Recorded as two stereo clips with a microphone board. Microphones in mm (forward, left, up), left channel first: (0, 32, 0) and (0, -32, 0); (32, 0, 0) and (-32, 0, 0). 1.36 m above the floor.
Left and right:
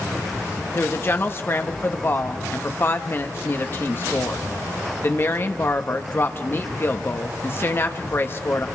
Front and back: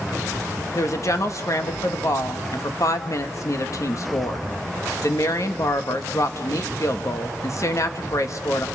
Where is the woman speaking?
35° left, 1.6 m.